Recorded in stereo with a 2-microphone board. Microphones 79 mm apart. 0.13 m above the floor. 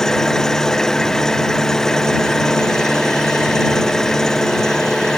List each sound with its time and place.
0.0 s an engine running: 5° left (ahead or behind)